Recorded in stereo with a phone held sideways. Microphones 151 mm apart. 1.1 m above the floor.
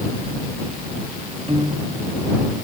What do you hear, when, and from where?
1.5 s a piano: 40° right (ahead or behind)